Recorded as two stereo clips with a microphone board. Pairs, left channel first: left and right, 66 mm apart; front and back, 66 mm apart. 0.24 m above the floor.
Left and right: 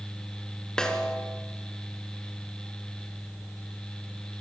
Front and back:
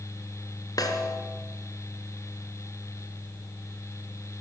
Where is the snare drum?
10° left, 2.5 m.